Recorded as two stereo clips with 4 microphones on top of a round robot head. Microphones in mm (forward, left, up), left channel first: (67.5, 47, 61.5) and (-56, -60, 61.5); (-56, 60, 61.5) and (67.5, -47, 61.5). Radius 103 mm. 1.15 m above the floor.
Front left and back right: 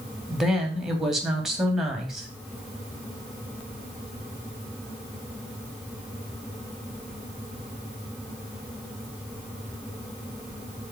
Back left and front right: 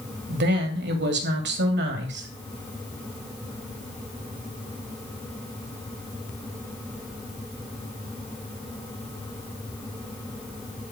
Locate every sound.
0.3 s a woman speaking: 50° right, 2.5 m